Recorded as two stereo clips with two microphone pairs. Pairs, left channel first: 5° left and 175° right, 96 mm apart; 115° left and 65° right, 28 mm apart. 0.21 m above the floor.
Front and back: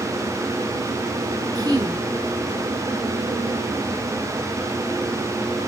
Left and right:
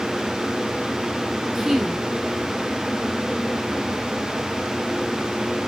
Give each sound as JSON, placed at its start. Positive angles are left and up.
{"t": 1.6, "sound": "a woman speaking", "azimuth_deg": -140, "distance_m": 2.0}